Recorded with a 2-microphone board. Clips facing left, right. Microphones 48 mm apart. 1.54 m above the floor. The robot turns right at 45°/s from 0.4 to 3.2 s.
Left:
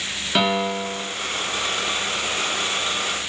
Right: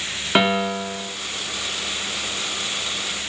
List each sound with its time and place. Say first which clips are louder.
0.3 s a piano: right 2 dB; 30° right (ahead or behind), 0.7 m; by 1.1 s 25° right (ahead or behind), 0.7 m